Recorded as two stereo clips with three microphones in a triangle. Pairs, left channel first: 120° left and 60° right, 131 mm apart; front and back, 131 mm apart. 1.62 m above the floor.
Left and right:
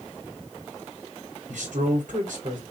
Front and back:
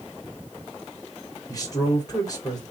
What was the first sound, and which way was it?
A man speaking, 60° right.